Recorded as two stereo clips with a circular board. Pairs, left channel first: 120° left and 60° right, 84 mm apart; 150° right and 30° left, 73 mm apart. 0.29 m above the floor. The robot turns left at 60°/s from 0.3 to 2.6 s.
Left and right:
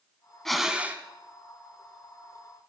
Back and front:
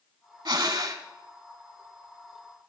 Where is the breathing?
35° left, 0.8 m; by 1.0 s straight ahead, 0.8 m.